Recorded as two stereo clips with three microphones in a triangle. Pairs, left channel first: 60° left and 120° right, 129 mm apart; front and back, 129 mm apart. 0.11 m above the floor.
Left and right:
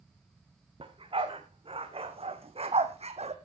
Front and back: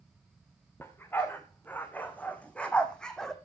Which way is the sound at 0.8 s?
75° right.